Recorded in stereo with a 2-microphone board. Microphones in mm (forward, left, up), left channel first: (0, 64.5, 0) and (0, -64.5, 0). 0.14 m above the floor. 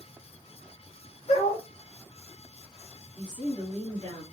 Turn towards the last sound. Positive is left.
turn(degrees=35)  # may be behind; listen again after turning